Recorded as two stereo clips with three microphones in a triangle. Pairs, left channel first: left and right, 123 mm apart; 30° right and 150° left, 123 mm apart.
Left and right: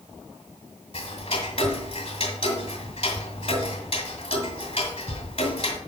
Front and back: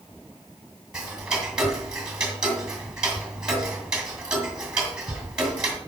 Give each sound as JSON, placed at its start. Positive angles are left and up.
{"t": 0.9, "sound": "ticking", "azimuth_deg": 70, "distance_m": 2.0}